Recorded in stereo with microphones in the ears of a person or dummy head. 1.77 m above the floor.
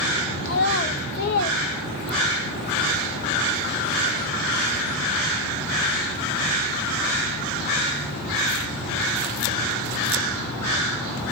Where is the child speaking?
45° left (ahead or behind), 0.7 m.